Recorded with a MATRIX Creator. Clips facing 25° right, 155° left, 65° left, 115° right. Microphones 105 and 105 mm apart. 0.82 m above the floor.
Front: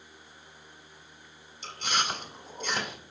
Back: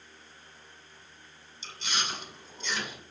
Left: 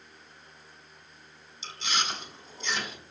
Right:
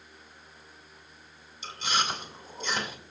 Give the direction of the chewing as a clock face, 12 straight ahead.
2 o'clock.